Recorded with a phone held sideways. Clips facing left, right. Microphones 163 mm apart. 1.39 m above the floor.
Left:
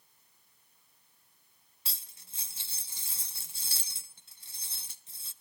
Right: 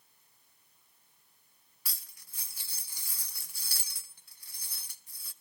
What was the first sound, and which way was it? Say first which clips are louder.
Cutlery clinking: even; 25° left (ahead or behind).